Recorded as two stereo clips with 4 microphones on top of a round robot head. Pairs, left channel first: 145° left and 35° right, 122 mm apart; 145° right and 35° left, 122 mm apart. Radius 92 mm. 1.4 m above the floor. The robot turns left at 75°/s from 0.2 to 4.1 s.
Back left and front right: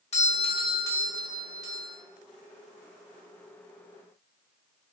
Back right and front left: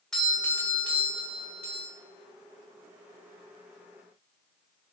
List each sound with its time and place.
0.1 s a doorbell: 130° left, 0.9 m; by 1.9 s straight ahead, 0.9 m